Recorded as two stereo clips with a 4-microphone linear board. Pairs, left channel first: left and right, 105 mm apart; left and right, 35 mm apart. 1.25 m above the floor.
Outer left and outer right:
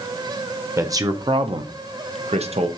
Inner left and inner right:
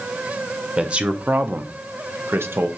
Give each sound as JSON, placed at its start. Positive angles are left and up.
{"t": 0.8, "sound": "a man speaking", "side_deg": -25, "distance_m": 0.8}